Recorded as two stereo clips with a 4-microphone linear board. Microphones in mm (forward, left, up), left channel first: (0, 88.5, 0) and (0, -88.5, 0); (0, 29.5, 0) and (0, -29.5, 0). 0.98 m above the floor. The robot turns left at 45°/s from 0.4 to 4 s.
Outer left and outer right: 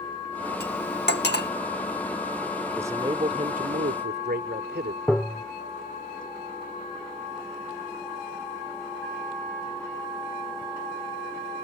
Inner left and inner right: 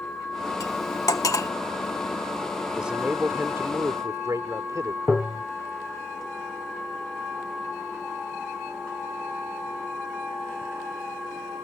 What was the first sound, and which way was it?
Cutlery clinking, 70° left (ahead or behind).